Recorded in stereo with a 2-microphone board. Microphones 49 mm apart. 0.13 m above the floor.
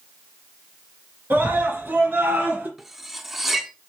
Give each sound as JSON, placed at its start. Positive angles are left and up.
{"t": 1.3, "sound": "a scream", "side_deg": -50, "distance_m": 2.5}
{"t": 2.8, "sound": "cutlery clinking", "side_deg": -5, "distance_m": 0.6}